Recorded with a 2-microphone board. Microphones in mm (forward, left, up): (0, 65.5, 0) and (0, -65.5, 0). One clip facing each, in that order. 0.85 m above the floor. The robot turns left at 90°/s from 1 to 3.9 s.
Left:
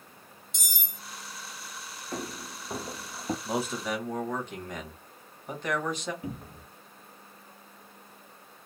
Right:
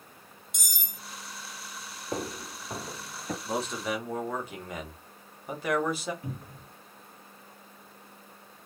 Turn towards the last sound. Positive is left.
turn(degrees=20)  # may be behind; listen again after turning